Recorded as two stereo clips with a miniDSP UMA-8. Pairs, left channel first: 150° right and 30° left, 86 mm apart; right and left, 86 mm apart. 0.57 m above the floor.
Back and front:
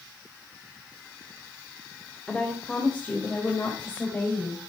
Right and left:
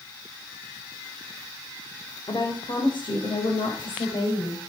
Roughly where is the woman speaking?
Right.